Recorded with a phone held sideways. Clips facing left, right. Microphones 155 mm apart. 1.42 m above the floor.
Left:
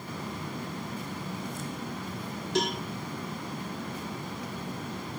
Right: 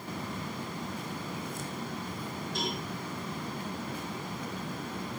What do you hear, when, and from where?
2.5 s a cowbell: 75° left (ahead or behind), 2.5 m